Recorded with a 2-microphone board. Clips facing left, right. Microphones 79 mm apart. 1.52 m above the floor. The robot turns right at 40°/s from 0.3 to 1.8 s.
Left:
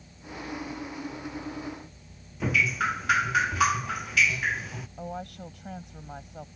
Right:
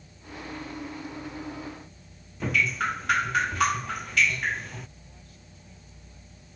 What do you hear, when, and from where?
2.4 s dripping: 5° left (ahead or behind)
5.0 s a woman speaking: 70° left (ahead or behind)